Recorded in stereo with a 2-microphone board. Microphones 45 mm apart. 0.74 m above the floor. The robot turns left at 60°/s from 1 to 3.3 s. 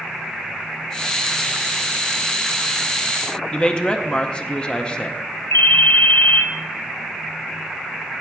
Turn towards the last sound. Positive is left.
turn(degrees=60)  # may be behind; listen again after turning